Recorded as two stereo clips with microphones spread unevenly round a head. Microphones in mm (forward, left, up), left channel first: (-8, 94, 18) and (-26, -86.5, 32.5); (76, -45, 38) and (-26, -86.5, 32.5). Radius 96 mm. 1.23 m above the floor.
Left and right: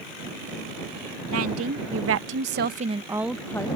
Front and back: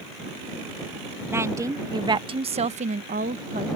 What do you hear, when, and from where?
1.3 s a woman speaking: 90° right; by 3.8 s 155° left